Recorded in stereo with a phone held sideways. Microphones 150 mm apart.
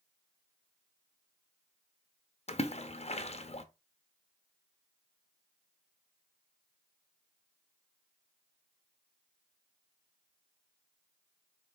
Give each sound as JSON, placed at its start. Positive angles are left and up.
{"t": 2.5, "sound": "a splash", "side_deg": 45, "distance_m": 0.6}